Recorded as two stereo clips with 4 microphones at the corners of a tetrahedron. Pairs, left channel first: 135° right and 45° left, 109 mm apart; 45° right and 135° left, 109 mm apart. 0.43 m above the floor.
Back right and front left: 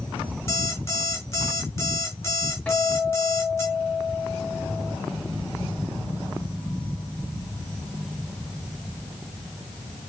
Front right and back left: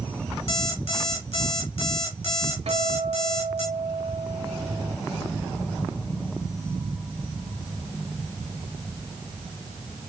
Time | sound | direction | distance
0.5 | an alarm clock | 70° right | 3 m
2.7 | a guitar | 145° left | 0.9 m